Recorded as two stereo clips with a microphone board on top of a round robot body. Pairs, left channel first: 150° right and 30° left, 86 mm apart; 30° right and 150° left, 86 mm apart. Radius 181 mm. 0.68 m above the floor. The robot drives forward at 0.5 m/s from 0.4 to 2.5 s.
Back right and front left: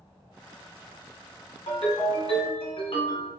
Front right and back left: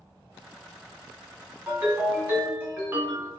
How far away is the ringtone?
About 1.4 m.